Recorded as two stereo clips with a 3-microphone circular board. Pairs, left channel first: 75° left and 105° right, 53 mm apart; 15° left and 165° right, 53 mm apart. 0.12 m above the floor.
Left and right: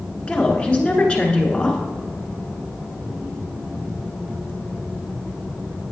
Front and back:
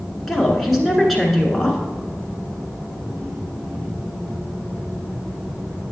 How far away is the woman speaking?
About 1.3 m.